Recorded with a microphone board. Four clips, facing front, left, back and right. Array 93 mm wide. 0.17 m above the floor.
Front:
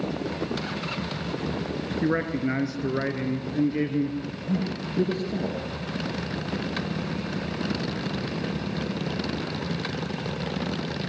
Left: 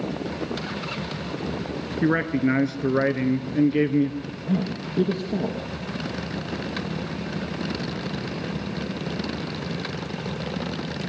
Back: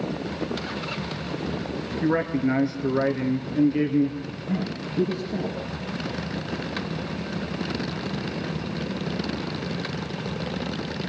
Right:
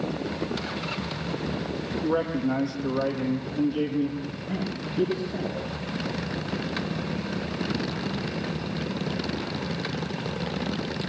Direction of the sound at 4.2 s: 75° left.